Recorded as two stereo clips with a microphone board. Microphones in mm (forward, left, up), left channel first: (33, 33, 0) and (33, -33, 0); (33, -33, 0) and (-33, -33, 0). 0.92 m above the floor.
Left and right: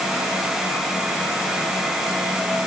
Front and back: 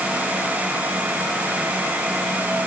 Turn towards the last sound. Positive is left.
No sound to turn to.